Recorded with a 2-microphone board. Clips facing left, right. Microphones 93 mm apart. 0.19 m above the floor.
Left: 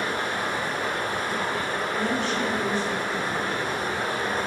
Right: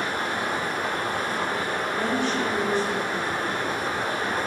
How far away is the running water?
About 1.0 m.